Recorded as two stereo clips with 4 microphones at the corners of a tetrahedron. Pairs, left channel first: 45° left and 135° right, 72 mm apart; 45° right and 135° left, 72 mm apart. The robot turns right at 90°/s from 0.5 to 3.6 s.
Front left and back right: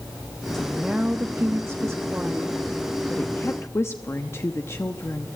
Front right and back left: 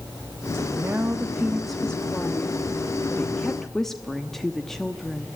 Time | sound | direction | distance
0.5 | a woman speaking | 120° left | 0.9 m